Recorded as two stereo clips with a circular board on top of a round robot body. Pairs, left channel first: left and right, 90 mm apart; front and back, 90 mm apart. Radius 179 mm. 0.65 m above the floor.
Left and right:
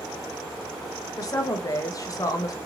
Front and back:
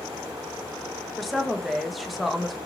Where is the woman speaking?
90° left, 0.7 m.